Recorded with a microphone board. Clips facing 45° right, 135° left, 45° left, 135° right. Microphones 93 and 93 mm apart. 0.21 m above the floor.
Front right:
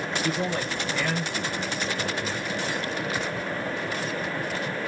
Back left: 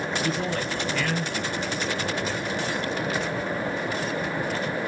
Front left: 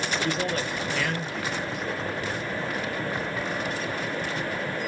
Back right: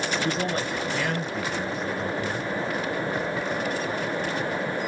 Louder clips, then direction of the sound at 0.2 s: Front right 2 dB, back right 1 dB; 115° right.